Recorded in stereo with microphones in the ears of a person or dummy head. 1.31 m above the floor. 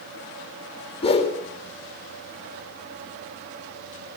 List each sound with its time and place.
1.0 s a whoosh: 35° left (ahead or behind), 4.5 m